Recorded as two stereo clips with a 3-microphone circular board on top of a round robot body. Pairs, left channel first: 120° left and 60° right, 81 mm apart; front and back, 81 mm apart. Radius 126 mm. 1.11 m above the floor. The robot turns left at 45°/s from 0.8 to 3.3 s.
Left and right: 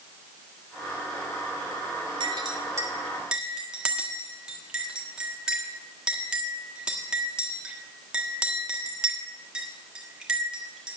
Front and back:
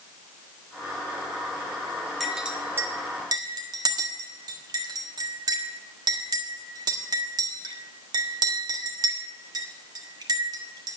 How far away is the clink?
About 1.5 m.